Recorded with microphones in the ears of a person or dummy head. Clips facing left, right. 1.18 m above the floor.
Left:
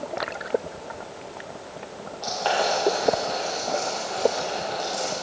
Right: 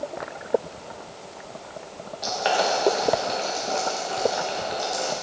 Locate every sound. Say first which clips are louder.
2.2 s boiling: right 1 dB; 20° right (ahead or behind), 1.5 m